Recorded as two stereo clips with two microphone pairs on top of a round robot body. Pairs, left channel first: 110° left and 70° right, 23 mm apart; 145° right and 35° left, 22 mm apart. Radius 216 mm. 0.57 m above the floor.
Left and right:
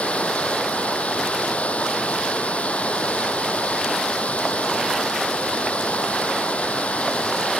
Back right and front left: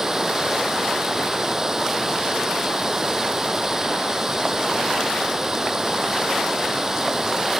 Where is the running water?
110° left.